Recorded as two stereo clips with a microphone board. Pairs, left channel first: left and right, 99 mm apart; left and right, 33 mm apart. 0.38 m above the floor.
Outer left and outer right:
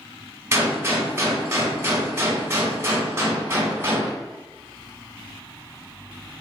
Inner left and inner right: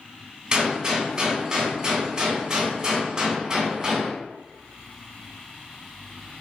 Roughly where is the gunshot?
Right.